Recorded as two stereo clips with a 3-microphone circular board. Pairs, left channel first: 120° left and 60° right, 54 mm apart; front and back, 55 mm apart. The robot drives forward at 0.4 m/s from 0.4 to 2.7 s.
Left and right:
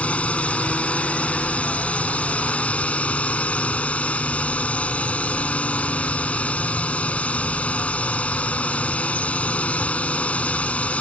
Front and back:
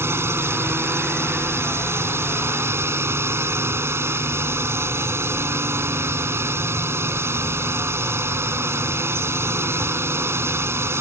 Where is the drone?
175° left.